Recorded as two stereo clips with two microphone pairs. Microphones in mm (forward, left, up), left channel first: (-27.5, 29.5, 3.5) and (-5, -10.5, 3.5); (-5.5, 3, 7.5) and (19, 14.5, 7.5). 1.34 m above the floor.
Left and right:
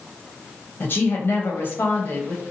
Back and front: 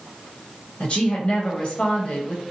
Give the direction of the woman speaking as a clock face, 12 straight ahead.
7 o'clock.